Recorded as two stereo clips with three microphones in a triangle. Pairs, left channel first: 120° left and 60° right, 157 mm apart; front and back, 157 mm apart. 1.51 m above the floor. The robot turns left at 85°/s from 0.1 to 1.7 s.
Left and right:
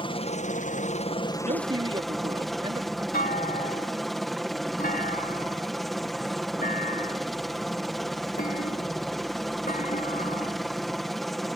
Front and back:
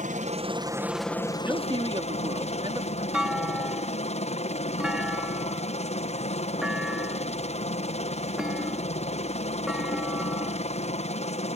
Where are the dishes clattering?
No dishes clattering in this recording.